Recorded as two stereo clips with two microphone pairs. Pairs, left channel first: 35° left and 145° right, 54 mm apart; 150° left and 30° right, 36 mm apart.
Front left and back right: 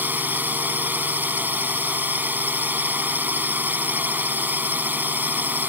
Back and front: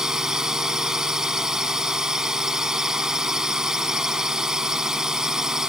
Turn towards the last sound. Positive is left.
turn(degrees=-95)